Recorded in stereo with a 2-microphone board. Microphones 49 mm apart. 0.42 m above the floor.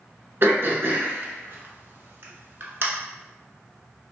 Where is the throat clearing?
55° right (ahead or behind), 0.8 m.